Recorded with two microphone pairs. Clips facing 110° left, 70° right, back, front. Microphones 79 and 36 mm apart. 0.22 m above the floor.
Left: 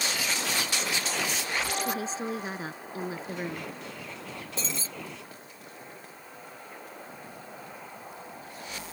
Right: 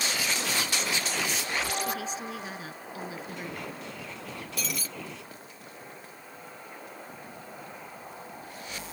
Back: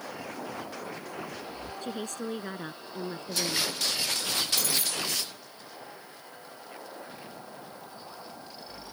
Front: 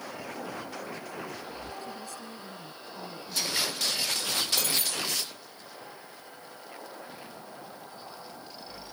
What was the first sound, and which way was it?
A woman speaking, 165° left.